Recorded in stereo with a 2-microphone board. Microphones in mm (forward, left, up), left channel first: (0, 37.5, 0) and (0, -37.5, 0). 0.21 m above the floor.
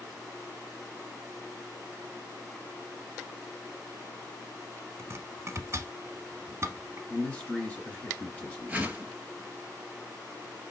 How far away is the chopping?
About 0.9 m.